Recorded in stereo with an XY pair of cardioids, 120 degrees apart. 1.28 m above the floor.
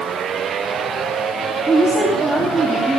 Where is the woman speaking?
10° right, 3 m.